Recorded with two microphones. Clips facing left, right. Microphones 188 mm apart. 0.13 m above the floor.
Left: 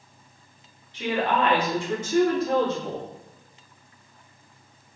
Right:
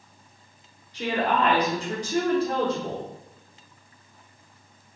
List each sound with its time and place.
0.9 s a woman speaking: 45° right (ahead or behind), 1.4 m; by 3.1 s 25° right (ahead or behind), 1.8 m